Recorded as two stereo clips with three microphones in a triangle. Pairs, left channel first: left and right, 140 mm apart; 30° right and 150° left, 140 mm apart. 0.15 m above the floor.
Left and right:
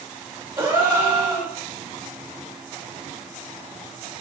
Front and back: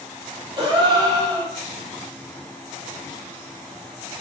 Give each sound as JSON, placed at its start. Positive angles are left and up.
{"t": 0.6, "sound": "a gasp", "azimuth_deg": -160, "distance_m": 5.0}